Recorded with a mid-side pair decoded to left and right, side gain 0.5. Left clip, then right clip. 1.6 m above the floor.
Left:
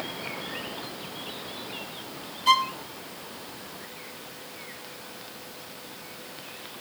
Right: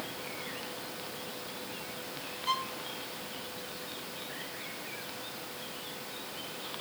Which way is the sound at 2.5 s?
65° left.